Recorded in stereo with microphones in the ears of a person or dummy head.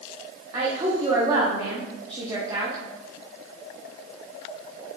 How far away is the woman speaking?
About 0.6 m.